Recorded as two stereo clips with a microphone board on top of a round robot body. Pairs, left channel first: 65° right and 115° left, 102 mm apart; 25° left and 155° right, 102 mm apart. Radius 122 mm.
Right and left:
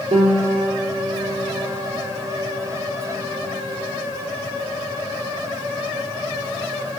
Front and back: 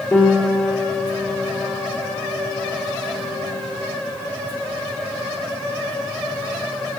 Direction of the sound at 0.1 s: 90° left.